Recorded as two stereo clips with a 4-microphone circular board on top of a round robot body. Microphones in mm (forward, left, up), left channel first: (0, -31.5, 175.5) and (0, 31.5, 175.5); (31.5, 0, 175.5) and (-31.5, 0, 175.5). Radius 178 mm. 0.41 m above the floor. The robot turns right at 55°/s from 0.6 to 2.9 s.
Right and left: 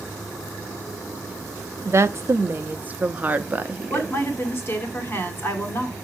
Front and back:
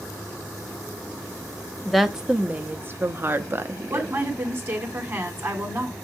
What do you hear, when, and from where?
1.9 s a woman speaking: 85° left, 1.1 m; by 4.2 s 140° left, 1.1 m
3.9 s a woman speaking: 135° right, 2 m